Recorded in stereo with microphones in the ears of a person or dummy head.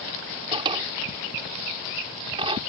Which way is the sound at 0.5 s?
25° right (ahead or behind).